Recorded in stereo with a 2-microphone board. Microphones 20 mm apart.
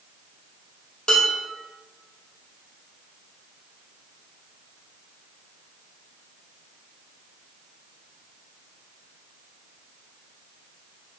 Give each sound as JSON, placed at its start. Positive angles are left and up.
{"t": 1.1, "sound": "dishes clattering", "side_deg": 50, "distance_m": 1.8}